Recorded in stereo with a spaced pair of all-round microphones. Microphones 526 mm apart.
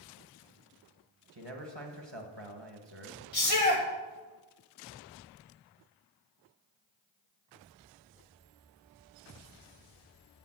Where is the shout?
85° left, 2 m.